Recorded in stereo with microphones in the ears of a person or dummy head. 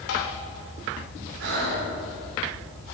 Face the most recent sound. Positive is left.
turn(degrees=-70)  # may be behind; listen again after turning